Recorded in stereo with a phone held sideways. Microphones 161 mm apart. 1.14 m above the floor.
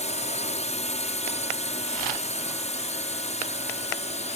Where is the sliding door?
No sliding door in this recording.